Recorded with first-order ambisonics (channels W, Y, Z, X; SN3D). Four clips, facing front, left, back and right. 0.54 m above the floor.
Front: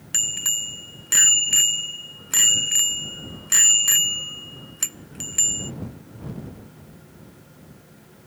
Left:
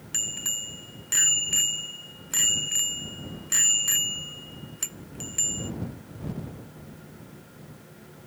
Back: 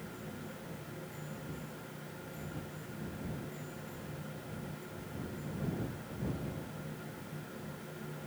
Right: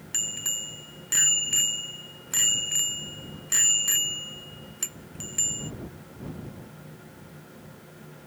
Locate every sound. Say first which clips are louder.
0.1 s a bicycle bell: even, front 20 dB; straight ahead